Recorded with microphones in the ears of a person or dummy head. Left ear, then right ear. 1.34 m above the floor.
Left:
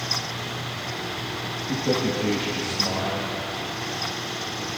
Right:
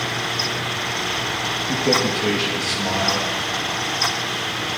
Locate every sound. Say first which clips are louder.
1.7 s a man speaking: right 4 dB; 60° right (ahead or behind), 1.6 m